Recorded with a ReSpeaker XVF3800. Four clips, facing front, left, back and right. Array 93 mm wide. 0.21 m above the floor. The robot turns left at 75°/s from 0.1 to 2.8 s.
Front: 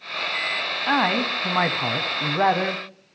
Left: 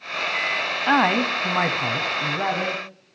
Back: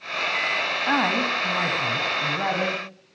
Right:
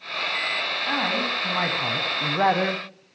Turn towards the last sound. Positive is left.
turn(degrees=-65)